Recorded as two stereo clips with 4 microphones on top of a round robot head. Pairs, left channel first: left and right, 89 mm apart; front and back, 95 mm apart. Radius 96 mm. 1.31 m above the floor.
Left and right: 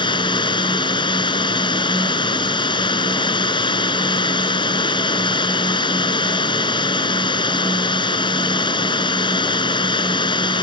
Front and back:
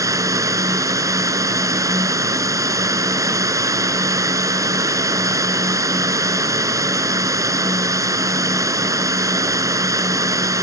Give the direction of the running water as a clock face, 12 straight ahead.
8 o'clock.